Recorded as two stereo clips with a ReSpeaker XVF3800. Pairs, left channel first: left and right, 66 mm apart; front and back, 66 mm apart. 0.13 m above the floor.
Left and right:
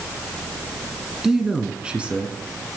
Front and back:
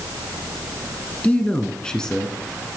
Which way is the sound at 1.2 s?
15° right.